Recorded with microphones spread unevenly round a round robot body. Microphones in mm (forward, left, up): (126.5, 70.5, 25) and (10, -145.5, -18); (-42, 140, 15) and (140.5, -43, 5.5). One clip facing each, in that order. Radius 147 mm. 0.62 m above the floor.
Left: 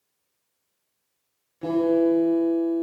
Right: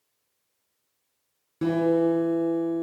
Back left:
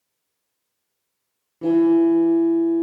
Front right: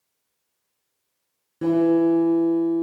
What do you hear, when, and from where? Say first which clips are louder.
1.6 s a guitar: left 1 dB, back left 3 dB; 115° right, 5 m